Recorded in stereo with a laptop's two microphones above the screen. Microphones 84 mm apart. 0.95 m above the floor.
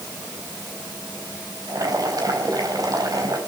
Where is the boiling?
50° right (ahead or behind), 4 m.